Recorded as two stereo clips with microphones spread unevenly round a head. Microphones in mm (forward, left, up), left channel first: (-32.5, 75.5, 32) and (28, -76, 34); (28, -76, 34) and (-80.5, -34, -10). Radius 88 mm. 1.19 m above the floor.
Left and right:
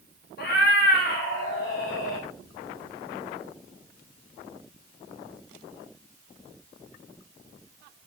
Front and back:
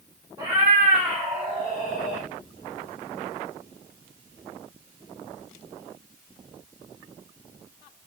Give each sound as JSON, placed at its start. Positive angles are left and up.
{"t": 0.4, "sound": "a cat meowing", "azimuth_deg": 80, "distance_m": 1.1}